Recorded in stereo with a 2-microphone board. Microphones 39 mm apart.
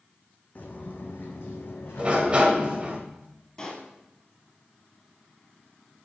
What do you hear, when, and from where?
0.6 s footsteps: 45° left (ahead or behind), 1.3 m; by 3.0 s 75° left (ahead or behind), 2 m
2.0 s a sliding door: 30° right (ahead or behind), 1.2 m
3.6 s a pop: 20° left (ahead or behind), 2.5 m